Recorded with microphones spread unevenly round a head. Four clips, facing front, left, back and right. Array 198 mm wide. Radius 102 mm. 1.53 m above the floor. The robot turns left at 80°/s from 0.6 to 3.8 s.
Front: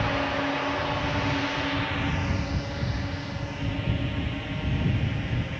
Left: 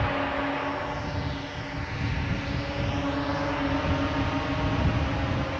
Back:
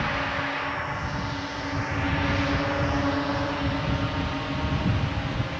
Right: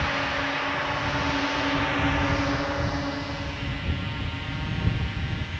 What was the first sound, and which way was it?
A drone, 40° left.